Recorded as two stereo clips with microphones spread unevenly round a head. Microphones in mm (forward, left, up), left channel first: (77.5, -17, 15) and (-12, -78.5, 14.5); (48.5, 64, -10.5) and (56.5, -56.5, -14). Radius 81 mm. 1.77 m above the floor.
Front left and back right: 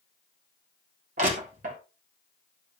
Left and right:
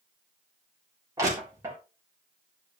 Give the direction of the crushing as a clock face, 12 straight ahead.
5 o'clock.